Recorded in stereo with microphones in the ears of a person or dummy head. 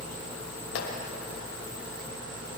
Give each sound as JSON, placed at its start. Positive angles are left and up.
{"t": 0.8, "sound": "a clap", "side_deg": 65, "distance_m": 6.0}